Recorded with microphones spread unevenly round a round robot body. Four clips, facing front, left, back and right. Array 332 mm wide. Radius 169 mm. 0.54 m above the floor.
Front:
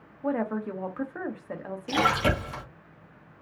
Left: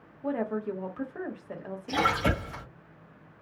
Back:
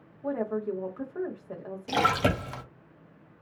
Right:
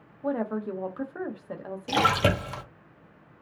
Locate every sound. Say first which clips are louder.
0.2 s a woman speaking: right 1 dB, front 1 dB; 20° right, 0.9 m
1.9 s a splash: right 3 dB, front 1 dB; 110° right, 1.1 m